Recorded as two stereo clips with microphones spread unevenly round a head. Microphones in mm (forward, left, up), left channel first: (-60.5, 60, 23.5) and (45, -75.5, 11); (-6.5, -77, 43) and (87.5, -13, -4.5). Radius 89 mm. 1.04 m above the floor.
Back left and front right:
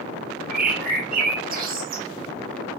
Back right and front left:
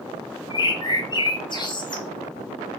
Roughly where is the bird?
Right.